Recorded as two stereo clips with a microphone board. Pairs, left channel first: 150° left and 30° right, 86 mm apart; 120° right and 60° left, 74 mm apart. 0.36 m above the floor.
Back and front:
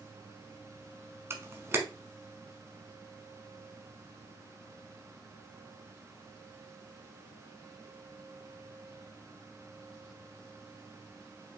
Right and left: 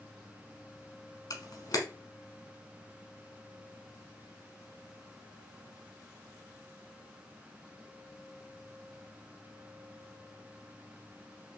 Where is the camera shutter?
90° right, 1.1 m.